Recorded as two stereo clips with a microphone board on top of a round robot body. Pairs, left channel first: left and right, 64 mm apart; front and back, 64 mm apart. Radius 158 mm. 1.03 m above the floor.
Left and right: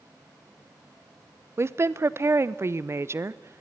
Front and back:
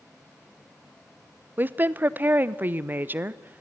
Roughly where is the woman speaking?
Behind right.